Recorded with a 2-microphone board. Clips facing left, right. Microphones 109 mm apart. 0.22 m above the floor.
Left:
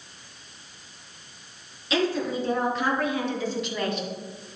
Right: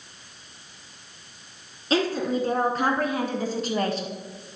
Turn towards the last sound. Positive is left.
turn(degrees=-35)  # may be behind; listen again after turning